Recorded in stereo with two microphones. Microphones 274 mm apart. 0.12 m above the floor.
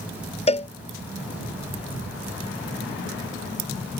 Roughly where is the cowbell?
Left.